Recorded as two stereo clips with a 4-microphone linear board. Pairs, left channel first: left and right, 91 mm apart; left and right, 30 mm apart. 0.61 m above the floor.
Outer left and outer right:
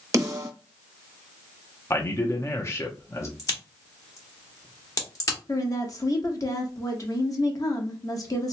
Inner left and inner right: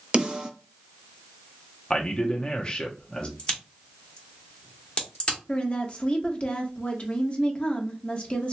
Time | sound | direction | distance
0.1 | a snare drum | 35° right (ahead or behind) | 0.9 m
1.9 | a man speaking | 30° left (ahead or behind) | 0.6 m
3.4 | a crack | 40° left (ahead or behind) | 1.4 m
5.5 | a woman speaking | 40° left (ahead or behind) | 0.9 m